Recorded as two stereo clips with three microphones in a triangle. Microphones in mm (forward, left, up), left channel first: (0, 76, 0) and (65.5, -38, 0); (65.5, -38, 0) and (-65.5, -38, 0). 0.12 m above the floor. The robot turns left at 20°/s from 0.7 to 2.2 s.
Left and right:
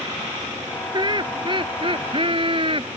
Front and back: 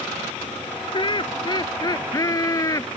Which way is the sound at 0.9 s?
25° right.